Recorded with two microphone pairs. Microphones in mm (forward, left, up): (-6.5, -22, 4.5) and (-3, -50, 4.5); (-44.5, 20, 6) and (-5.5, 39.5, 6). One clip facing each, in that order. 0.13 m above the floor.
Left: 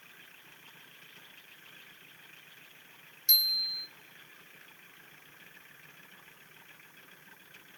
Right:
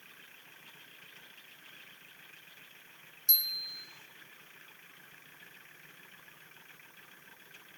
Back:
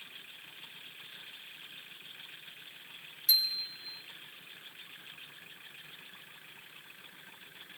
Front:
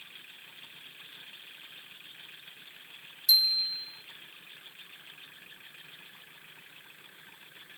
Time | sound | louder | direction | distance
3.3 | a bicycle bell | left 6 dB, front 5 dB | 165° left | 4 m